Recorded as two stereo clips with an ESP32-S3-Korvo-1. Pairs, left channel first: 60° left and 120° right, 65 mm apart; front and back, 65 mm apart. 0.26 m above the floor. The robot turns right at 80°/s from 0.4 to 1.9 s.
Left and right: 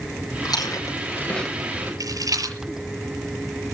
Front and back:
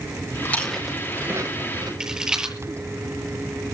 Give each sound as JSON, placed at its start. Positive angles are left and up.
{"t": 0.5, "sound": "chewing", "azimuth_deg": 60, "distance_m": 8.5}
{"t": 2.0, "sound": "a rattle", "azimuth_deg": -100, "distance_m": 7.0}